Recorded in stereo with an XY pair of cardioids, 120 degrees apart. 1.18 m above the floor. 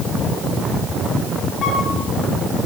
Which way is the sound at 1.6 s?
55° left.